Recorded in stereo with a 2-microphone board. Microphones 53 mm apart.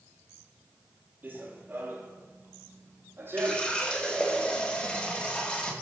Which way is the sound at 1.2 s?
35° right (ahead or behind).